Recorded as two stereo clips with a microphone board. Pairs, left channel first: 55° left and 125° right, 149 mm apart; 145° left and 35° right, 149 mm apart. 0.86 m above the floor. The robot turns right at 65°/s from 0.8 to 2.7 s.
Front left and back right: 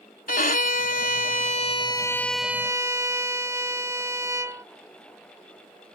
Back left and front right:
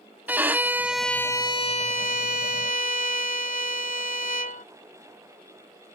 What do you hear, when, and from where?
0.3 s a violin: 45° left; by 4.7 s 165° left